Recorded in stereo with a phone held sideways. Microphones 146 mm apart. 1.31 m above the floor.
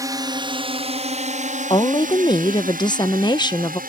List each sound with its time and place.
0.0 s a drone: 25° right (ahead or behind); by 3.9 s 75° right (ahead or behind)
1.7 s a woman speaking: 30° left (ahead or behind)